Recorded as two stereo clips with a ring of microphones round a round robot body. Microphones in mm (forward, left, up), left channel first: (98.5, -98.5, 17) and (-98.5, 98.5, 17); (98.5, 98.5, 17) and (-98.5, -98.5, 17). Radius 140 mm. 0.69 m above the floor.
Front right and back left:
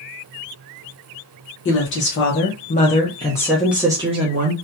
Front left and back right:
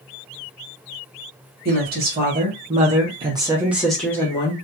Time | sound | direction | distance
1.6 | a woman speaking | 85° right | 1.5 m